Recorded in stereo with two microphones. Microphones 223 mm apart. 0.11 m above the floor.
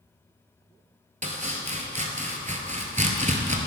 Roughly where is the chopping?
Right.